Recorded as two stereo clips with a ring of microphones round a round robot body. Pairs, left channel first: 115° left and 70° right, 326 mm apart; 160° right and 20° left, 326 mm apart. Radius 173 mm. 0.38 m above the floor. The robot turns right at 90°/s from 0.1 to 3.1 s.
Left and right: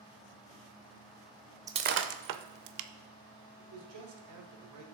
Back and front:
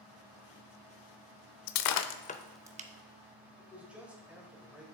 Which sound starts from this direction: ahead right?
A man speaking, at 3.6 s.